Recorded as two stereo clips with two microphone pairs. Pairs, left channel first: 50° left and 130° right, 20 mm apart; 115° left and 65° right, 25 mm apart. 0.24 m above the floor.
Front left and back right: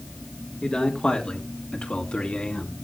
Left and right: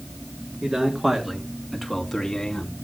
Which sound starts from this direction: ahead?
A man speaking, at 0.6 s.